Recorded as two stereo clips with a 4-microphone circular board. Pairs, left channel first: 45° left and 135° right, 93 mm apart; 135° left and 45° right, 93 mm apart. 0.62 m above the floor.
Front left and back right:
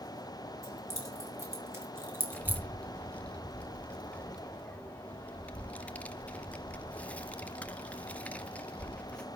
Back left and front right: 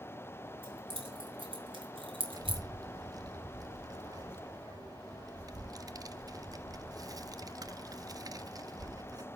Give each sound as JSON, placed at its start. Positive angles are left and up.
{"t": 0.6, "sound": "keys jangling", "azimuth_deg": -75, "distance_m": 5.0}
{"t": 2.3, "sound": "a child speaking", "azimuth_deg": -25, "distance_m": 0.6}